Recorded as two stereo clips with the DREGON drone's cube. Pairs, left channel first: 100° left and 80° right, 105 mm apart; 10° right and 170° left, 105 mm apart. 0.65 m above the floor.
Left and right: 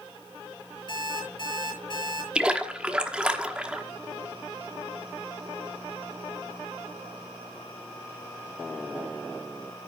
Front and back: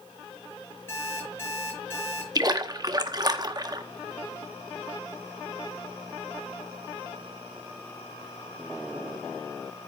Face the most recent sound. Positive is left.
turn(degrees=-155)